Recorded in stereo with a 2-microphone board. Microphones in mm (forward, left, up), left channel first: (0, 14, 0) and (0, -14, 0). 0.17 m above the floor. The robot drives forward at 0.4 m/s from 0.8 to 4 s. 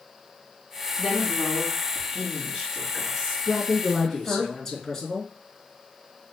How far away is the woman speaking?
About 2.5 m.